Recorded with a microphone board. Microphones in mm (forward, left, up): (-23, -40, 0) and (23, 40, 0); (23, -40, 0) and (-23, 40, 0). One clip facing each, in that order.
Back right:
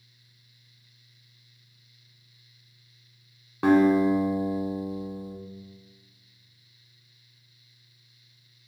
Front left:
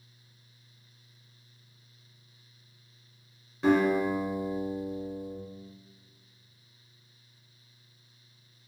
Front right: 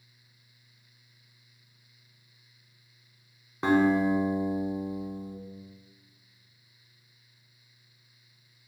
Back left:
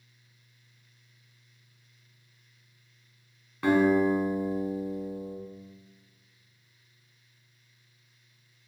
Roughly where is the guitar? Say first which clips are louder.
Back right 5 dB, back left 1 dB; behind right.